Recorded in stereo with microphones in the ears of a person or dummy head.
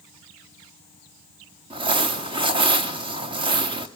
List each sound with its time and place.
1.7 s crumpling: 25° right (ahead or behind), 0.9 m